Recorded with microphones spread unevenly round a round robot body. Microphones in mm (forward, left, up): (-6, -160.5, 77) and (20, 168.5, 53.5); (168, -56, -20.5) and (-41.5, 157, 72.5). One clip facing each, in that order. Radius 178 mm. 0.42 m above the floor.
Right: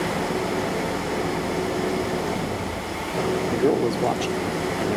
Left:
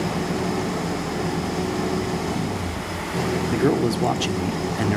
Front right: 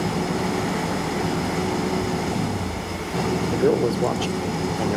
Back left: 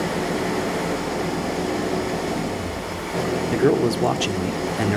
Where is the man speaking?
80° left, 1.7 m.